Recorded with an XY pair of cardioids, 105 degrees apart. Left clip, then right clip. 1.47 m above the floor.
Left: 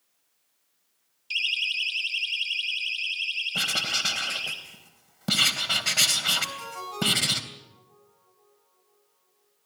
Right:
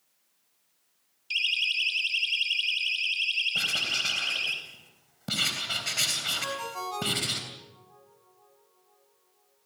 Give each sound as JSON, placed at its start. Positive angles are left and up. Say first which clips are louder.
{"t": 1.3, "sound": "a siren", "louder": "even", "azimuth_deg": 5, "distance_m": 3.0}
{"t": 3.5, "sound": "writing", "louder": "left 1 dB", "azimuth_deg": 40, "distance_m": 3.0}
{"t": 6.4, "sound": "a ringtone", "louder": "even", "azimuth_deg": -25, "distance_m": 7.5}